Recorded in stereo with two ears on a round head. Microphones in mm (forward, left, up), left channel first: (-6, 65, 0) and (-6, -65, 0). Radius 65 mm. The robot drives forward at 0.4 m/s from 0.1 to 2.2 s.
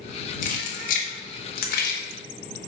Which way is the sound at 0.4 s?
55° left (ahead or behind).